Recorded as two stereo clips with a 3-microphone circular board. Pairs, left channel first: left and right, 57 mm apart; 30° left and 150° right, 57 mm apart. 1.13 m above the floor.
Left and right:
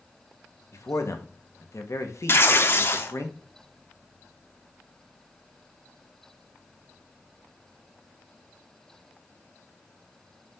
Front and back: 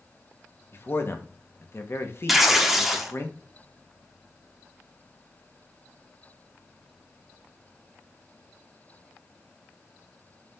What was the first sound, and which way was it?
A man speaking, 70° left.